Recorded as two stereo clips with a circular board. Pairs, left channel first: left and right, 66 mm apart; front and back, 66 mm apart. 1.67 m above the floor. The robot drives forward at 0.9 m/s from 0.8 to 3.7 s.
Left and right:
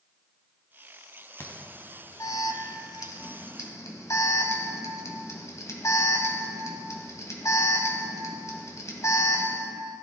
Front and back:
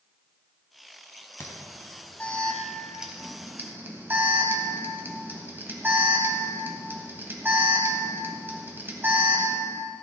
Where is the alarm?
45° left, 1.8 m; by 9.6 s 125° left, 1.6 m.